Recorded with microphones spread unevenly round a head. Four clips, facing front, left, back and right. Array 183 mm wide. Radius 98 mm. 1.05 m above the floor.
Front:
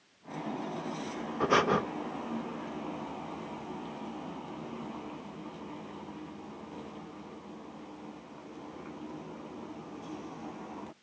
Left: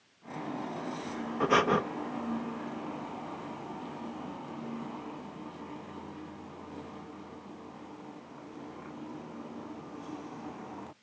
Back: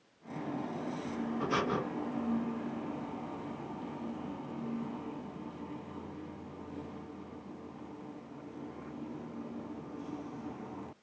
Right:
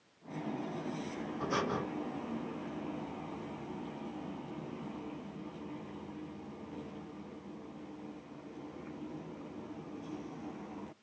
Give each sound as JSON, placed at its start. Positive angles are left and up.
{"t": 1.4, "sound": "breathing", "azimuth_deg": 45, "distance_m": 0.9}